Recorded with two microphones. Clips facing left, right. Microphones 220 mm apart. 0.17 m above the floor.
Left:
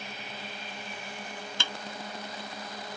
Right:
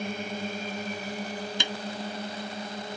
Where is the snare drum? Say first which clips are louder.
Right 6 dB; 15° right (ahead or behind).